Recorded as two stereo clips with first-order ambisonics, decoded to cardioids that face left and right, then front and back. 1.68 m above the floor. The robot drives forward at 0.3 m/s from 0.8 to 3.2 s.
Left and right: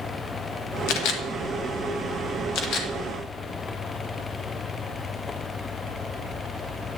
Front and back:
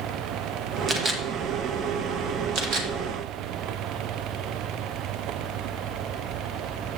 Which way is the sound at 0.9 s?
110° left.